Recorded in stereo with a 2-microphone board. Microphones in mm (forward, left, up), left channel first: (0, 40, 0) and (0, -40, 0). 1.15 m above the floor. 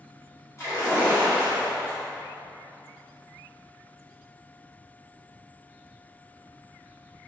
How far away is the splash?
About 1.6 m.